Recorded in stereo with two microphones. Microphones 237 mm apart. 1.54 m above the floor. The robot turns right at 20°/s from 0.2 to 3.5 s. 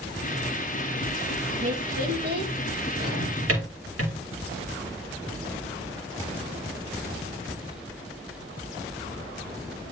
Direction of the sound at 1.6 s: 30° right (ahead or behind).